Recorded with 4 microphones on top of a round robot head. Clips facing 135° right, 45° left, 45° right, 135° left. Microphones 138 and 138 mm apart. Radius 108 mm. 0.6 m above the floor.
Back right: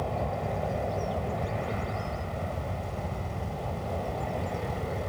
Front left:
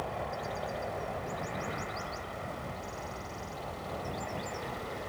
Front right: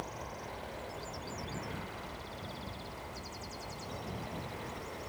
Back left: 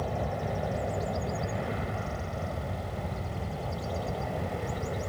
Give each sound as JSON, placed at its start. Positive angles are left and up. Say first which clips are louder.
{"t": 0.0, "sound": "an aircraft", "louder": "back right 5 dB, back left 11 dB", "azimuth_deg": 165}